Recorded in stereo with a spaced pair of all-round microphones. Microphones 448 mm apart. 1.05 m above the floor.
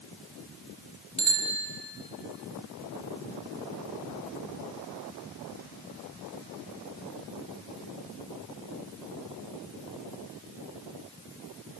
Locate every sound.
1.2 s a bicycle bell: 40° left (ahead or behind), 5 m